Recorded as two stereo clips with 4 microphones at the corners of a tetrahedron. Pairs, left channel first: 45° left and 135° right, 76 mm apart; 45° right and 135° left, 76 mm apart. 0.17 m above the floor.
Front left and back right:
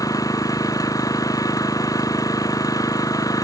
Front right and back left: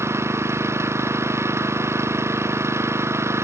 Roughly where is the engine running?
Left.